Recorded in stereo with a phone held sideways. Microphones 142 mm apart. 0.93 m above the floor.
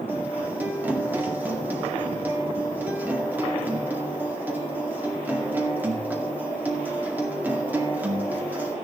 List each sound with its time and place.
0.1 s a guitar: 10° right (ahead or behind), 1.9 m